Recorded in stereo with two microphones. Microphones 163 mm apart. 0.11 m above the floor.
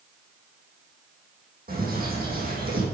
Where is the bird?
65° right (ahead or behind), 5 m.